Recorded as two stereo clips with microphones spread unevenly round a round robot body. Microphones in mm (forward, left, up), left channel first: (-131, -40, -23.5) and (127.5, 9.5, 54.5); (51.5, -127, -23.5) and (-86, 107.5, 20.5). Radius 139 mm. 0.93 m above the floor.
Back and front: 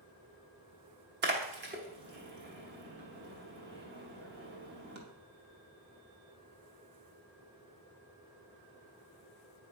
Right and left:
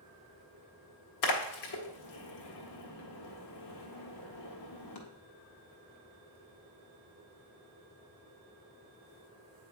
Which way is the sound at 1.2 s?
35° right.